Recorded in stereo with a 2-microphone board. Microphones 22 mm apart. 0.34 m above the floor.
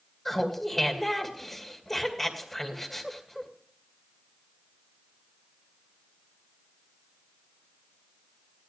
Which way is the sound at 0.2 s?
10° left (ahead or behind).